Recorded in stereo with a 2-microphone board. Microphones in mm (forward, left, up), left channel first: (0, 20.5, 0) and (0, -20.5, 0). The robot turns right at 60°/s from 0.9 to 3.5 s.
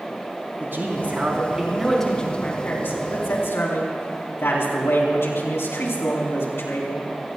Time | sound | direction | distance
0.6 | a man speaking | 55° right | 4 m